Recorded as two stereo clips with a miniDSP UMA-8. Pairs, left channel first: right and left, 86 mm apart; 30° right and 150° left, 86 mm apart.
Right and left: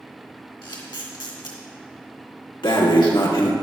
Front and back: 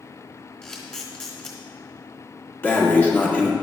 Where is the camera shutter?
110° right, 2 m.